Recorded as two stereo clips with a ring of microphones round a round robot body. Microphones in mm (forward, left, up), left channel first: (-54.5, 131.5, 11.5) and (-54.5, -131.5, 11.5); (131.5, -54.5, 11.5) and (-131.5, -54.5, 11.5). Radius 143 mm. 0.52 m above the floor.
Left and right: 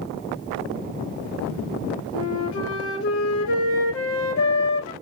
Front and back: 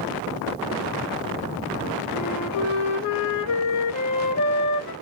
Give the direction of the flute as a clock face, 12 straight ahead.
11 o'clock.